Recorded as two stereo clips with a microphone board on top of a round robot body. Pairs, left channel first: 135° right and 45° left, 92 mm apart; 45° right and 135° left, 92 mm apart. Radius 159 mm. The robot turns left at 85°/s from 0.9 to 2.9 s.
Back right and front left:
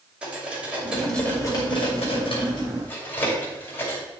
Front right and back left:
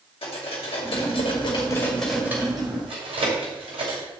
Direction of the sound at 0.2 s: 35° right.